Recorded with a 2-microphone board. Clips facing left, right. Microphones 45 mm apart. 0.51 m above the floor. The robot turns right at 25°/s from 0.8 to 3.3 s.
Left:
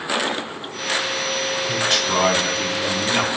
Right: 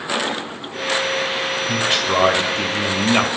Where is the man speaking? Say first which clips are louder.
Right 2 dB; 165° right, 2.5 m; by 3.3 s 125° right, 2.5 m.